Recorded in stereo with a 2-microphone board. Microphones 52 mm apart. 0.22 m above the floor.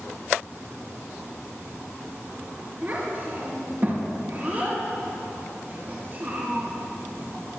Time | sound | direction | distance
2.8 | a child speaking | 40° right (ahead or behind) | 2.5 m